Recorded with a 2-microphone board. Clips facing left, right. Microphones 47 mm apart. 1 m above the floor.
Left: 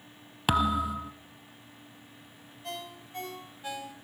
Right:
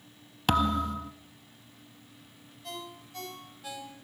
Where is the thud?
10° left (ahead or behind), 1.1 m.